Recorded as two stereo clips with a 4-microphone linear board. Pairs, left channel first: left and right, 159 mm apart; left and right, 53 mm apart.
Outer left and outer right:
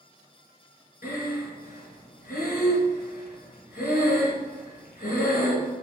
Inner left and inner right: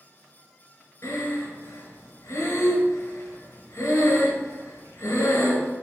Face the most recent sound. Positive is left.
turn(degrees=75)  # may be behind; listen again after turning